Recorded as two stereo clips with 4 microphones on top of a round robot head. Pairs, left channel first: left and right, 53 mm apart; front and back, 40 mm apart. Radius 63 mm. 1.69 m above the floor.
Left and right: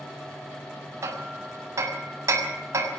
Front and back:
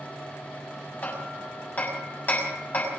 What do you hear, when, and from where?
1.0 s hammering: 60° right, 6.5 m